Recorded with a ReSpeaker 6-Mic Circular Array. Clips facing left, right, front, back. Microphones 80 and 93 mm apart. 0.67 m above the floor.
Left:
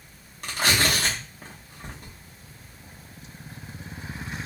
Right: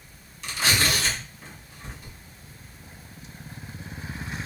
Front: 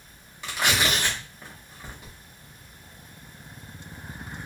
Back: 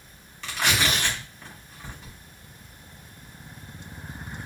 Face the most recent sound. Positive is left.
turn(degrees=75)